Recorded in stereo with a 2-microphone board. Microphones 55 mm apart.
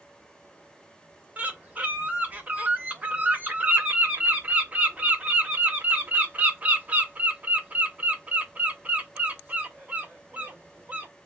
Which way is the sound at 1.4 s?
30° right (ahead or behind).